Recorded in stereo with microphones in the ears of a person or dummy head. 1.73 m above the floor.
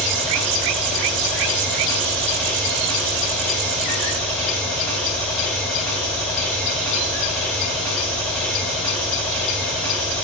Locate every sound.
0.0 s an engine running: 10° left (ahead or behind), 4.5 m